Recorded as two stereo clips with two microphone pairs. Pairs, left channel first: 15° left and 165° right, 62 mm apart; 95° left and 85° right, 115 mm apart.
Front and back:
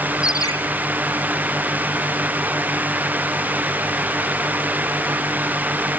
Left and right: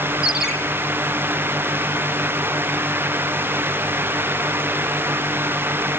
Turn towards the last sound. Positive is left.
turn(degrees=0)